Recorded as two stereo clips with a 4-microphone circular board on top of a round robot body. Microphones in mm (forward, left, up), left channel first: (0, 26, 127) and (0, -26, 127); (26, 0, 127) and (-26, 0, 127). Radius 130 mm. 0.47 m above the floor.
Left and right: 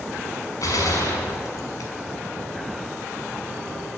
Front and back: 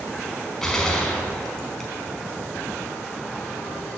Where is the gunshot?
80° left, 5 m.